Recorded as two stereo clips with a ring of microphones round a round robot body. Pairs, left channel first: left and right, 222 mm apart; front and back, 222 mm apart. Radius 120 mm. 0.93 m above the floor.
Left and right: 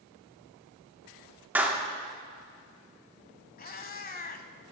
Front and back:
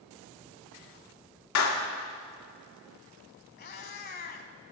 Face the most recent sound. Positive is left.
turn(degrees=45)